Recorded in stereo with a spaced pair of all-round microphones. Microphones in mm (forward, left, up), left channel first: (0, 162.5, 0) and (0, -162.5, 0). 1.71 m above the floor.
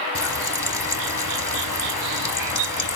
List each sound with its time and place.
0.1 s frying: 65° left (ahead or behind), 1.2 m